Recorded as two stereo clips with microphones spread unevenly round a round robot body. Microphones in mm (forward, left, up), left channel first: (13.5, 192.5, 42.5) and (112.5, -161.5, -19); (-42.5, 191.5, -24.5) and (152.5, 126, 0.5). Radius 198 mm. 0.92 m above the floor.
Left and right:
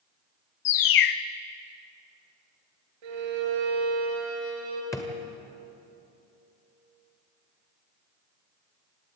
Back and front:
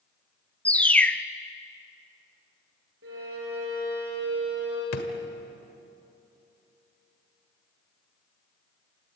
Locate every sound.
0.7 s a bird: 85° left, 1.0 m
3.0 s a violin: 70° right, 4.5 m
4.9 s a drawer: 175° right, 1.6 m